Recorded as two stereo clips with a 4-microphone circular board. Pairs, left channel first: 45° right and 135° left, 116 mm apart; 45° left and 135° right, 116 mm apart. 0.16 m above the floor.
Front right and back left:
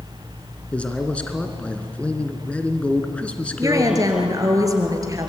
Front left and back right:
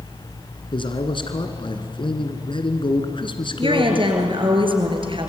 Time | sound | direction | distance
0.7 | a man speaking | 30° left | 2.0 m
3.6 | a woman speaking | 170° right | 3.5 m